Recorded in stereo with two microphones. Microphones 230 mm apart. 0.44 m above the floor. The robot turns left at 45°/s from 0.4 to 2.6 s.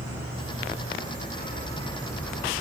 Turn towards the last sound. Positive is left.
turn(degrees=-10)